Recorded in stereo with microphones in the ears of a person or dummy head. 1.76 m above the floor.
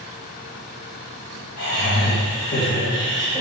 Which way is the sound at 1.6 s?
50° left (ahead or behind).